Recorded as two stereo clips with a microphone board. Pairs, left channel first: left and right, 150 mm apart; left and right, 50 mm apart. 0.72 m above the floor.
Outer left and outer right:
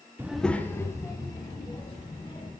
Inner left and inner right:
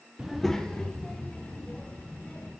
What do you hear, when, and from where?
0.2 s a child speaking: 15° right (ahead or behind), 0.6 m; by 2.5 s 30° left (ahead or behind), 4 m